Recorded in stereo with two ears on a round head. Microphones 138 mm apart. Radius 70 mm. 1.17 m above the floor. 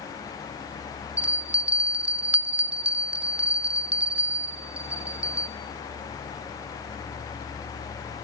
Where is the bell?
10° right (ahead or behind), 0.9 m.